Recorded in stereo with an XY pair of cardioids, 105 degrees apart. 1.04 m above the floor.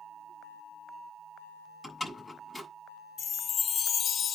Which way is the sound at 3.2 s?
55° left.